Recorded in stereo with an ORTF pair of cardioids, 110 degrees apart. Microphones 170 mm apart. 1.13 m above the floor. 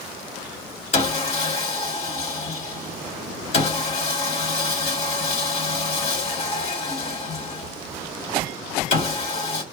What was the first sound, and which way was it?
Sawing, 40° left.